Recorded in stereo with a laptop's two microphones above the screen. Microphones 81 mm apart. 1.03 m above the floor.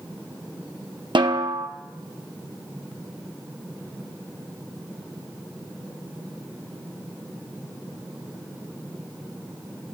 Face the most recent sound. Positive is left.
turn(degrees=-75)  # may be behind; listen again after turning